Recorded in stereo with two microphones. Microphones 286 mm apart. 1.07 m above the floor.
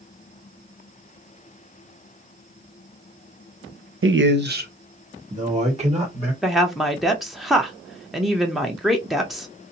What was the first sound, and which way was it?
A man speaking, 50° right (ahead or behind).